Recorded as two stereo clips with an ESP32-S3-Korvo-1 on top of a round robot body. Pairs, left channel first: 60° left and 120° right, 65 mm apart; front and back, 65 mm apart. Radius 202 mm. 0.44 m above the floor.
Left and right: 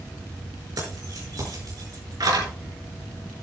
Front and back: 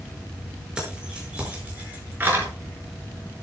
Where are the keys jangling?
105° right, 6 m; by 2.5 s 125° right, 6 m.